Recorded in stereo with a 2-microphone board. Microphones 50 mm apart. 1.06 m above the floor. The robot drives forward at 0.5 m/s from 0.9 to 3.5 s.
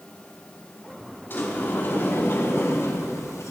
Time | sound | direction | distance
1.3 | a sliding door | 40° left (ahead or behind) | 2 m